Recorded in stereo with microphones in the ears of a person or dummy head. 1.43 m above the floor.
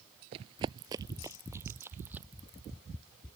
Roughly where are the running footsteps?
Right.